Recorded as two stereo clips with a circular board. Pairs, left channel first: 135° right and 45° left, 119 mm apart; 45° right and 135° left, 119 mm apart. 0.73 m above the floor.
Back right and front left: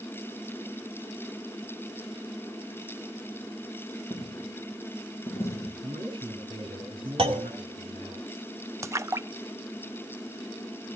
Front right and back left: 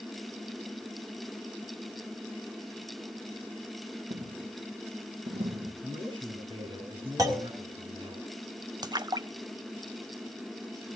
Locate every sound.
4.1 s a dropped coin: 160° left, 5.5 m
5.8 s a man speaking: 90° left, 7 m
7.2 s a clunk: 80° left, 2.0 m
8.8 s a splash: 100° left, 0.6 m